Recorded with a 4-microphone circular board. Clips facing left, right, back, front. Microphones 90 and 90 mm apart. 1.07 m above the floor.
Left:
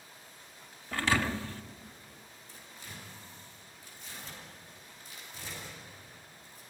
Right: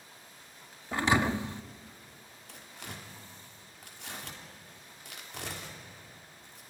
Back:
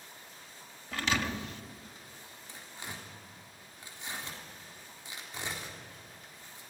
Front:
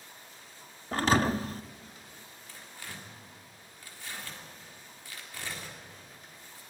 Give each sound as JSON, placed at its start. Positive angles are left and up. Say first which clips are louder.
{"t": 0.9, "sound": "a thud", "louder": "right 3 dB, front 7 dB", "azimuth_deg": -30, "distance_m": 0.6}
{"t": 2.5, "sound": "tearing paper", "louder": "right 4 dB, back 1 dB", "azimuth_deg": -110, "distance_m": 3.5}